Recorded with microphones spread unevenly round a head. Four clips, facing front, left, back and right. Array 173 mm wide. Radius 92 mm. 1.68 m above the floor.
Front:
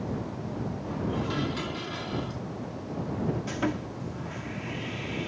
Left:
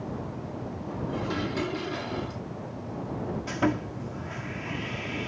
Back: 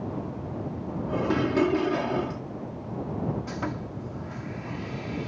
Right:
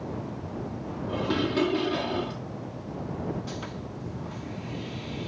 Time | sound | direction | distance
1.1 | dishes clattering | 150° right | ?
3.5 | sawing | 70° left | ?